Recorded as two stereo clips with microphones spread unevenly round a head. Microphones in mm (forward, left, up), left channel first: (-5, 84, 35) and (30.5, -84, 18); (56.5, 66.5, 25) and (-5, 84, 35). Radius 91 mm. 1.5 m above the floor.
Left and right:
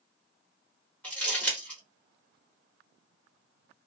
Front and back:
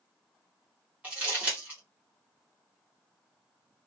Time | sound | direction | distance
1.0 | crumpling | 165° left | 1.3 m